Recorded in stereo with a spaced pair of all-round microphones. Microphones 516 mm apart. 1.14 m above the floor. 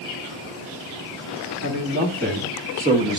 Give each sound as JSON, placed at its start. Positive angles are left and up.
{"t": 1.6, "sound": "a man speaking", "side_deg": -25, "distance_m": 3.5}